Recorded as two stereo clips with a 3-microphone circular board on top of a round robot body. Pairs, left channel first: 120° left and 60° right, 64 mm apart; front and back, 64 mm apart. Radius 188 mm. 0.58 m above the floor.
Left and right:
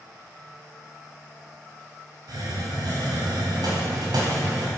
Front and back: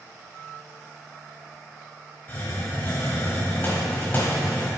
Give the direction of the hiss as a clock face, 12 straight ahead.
2 o'clock.